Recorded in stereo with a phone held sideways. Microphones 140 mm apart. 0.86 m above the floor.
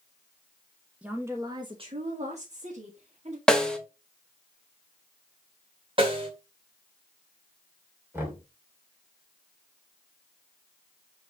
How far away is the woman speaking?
About 1.3 m.